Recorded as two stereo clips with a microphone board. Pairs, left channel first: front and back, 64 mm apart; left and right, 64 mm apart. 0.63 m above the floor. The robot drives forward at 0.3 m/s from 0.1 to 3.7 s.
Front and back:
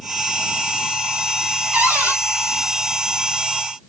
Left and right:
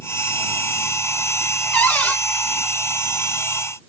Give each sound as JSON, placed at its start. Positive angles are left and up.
{"t": 1.7, "sound": "a cupboard door", "azimuth_deg": 130, "distance_m": 1.1}